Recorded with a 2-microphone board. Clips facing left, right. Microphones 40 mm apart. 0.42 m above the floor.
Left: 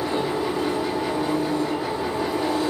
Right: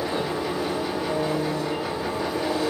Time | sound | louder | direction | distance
0.0 | an engine running | left 2 dB | 10° left (ahead or behind) | 4.5 m